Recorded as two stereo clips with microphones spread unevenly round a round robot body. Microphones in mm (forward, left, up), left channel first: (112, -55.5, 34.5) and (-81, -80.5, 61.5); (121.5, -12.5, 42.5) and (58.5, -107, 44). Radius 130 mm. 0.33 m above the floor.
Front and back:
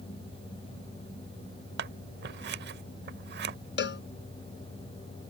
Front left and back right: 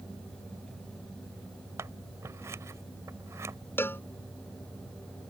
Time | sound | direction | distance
1.8 | scissors | 175° left | ?
3.8 | a cowbell | 15° right | ?